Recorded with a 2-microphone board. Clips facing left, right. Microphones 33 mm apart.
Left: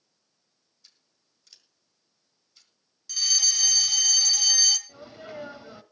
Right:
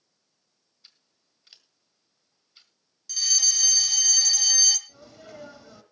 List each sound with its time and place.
0.8 s scissors: 35° right (ahead or behind), 1.8 m
3.1 s a fire alarm: 5° left (ahead or behind), 1.9 m
4.9 s a sneeze: 25° left (ahead or behind), 1.4 m